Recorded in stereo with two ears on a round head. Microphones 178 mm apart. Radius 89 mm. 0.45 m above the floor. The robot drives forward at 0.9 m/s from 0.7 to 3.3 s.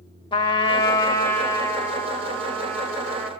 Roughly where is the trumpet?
Left.